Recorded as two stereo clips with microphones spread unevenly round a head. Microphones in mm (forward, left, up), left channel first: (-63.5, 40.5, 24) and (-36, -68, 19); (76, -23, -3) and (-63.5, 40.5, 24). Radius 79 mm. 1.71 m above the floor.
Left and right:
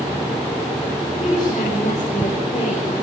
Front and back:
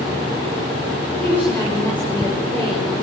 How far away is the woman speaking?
About 6.5 m.